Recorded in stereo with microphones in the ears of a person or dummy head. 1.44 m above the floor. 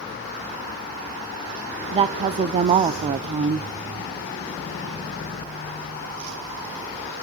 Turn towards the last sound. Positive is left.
turn(degrees=-25)  # may be behind; listen again after turning